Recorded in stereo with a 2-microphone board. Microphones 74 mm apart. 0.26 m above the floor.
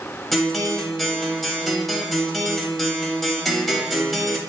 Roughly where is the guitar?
Centre.